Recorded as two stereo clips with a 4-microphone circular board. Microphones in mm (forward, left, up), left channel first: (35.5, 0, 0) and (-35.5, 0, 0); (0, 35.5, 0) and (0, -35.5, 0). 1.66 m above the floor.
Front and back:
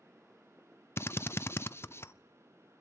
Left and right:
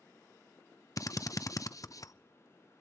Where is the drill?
50° left, 0.6 m.